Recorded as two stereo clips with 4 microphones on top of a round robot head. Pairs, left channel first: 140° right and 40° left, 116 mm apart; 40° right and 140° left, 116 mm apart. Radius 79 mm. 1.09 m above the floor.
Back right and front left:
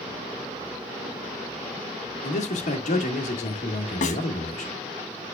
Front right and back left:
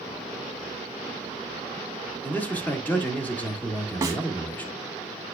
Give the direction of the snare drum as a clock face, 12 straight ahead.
5 o'clock.